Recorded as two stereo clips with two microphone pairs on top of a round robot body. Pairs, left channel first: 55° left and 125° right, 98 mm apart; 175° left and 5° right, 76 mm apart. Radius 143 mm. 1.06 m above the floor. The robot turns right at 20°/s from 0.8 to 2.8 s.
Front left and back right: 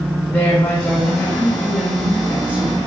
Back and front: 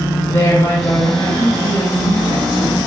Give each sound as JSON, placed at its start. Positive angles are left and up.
{"t": 0.3, "sound": "a woman speaking", "azimuth_deg": 125, "distance_m": 2.5}